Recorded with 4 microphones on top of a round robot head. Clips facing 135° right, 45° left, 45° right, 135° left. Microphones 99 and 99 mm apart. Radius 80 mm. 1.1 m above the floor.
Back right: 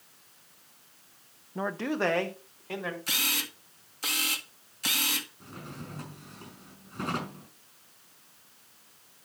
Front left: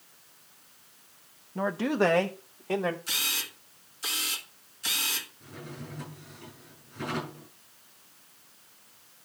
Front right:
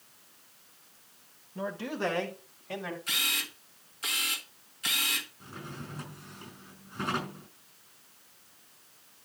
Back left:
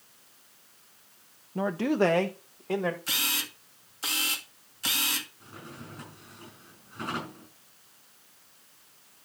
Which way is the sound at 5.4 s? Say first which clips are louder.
Even, front right 2 dB; 105° right.